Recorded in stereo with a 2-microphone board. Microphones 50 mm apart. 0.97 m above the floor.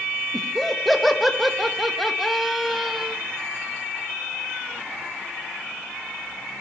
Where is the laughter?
Centre (ahead or behind), 1.3 m.